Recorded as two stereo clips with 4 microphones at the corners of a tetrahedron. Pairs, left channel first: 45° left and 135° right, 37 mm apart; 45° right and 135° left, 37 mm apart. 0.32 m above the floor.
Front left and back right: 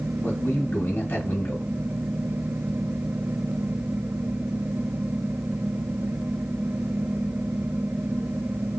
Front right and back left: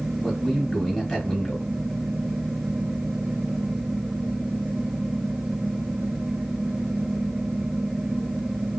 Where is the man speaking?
30° left, 3 m.